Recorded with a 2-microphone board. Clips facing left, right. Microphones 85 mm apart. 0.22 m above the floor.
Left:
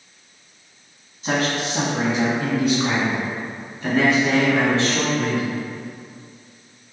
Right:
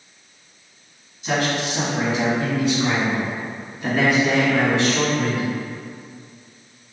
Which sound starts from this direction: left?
A man speaking, at 1.2 s.